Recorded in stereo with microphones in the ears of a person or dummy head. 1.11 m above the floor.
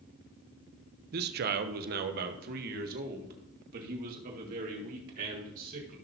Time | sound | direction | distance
1.1 | a man speaking | 55° right (ahead or behind) | 0.7 m